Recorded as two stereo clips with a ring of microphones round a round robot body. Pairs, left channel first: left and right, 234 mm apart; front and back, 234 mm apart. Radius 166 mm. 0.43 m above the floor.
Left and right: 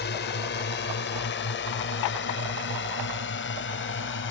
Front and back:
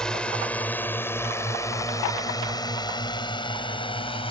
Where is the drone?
85° left; by 4.3 s 65° left.